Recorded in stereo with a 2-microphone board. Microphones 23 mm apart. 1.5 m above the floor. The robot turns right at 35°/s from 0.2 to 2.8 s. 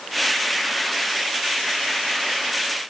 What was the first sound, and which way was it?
Only background noise.